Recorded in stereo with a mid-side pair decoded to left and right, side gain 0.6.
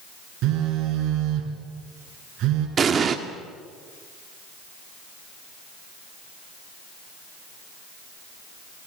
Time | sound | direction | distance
0.4 | a phone buzzing | 60° right | 5 m
2.8 | an explosion | 35° right | 2 m